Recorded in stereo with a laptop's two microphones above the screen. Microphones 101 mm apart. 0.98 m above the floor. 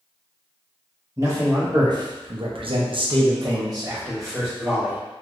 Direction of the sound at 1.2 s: 30° right (ahead or behind).